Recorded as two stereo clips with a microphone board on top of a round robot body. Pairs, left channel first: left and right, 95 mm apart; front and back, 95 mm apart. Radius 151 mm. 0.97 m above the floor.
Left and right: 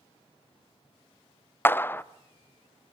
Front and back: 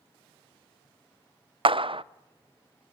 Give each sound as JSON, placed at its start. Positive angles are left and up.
{"t": 1.6, "sound": "a clap", "azimuth_deg": 155, "distance_m": 0.5}